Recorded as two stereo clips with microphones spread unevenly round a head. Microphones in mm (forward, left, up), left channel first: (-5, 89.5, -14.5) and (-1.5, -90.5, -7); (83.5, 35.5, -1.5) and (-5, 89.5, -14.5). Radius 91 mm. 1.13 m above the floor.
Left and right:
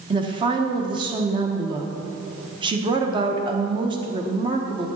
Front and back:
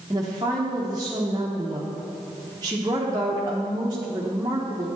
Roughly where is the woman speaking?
Behind right.